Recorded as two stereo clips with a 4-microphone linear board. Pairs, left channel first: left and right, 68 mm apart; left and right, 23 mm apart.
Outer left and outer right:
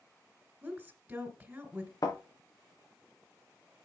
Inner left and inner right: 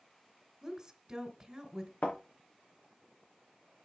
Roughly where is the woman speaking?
Centre.